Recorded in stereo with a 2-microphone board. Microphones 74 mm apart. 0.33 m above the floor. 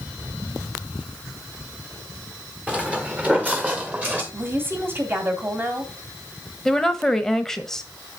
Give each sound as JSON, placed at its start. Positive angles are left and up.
{"t": 2.7, "sound": "footsteps", "side_deg": -15, "distance_m": 1.4}
{"t": 4.3, "sound": "a woman speaking", "side_deg": -30, "distance_m": 2.5}
{"t": 6.7, "sound": "a woman speaking", "side_deg": 5, "distance_m": 1.2}